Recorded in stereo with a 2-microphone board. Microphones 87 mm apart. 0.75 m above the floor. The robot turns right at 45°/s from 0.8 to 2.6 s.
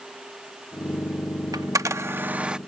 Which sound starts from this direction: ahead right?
A camera shutter, at 1.5 s.